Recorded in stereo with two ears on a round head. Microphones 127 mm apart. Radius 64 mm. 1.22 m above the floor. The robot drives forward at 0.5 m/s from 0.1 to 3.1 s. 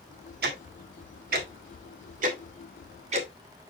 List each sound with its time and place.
0.4 s ticking: 75° right (ahead or behind), 1.6 m; by 3.7 s 50° right (ahead or behind), 2 m